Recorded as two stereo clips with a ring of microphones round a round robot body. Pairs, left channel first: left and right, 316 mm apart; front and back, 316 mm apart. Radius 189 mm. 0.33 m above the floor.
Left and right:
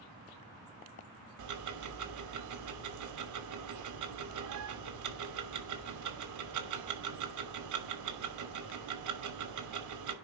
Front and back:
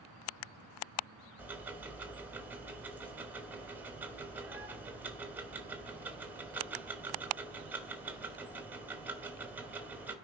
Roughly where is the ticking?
Right.